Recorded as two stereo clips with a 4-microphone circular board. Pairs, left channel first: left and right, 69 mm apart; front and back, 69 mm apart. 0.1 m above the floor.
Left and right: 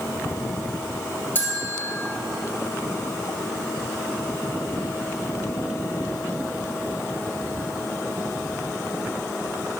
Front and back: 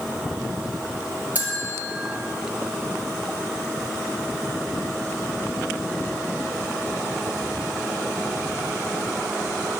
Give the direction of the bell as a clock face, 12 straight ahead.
8 o'clock.